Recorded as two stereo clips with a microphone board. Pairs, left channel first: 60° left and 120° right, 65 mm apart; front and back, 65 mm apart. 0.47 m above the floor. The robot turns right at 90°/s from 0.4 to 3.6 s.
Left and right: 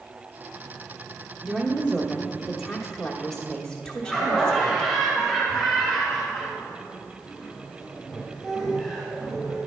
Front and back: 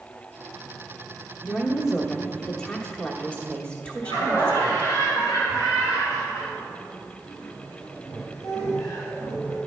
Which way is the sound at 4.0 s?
30° right.